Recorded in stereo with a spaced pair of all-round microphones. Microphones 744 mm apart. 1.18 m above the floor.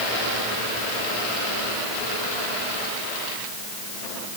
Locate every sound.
Only background noise.